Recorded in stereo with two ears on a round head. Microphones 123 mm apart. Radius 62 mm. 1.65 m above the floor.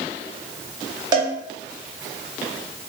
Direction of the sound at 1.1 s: 30° right (ahead or behind).